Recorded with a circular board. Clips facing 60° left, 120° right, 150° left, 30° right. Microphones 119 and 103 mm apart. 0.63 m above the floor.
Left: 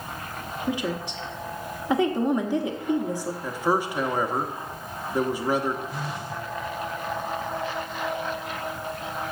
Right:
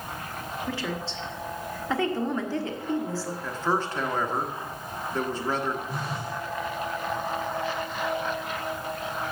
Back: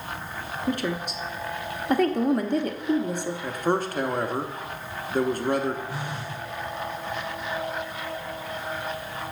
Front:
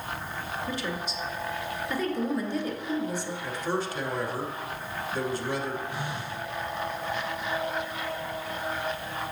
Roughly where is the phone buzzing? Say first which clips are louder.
Even, back 1 dB; behind.